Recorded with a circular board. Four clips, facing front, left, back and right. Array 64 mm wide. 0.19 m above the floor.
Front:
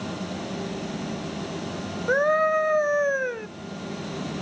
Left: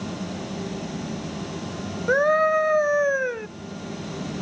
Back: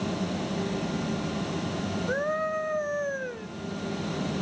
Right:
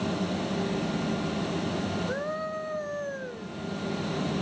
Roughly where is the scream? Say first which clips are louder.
Left 13 dB, front 9 dB; ahead left.